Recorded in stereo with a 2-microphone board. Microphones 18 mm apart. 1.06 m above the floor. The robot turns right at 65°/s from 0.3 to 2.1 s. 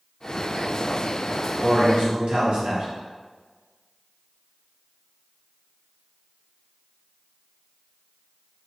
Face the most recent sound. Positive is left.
turn(degrees=-95)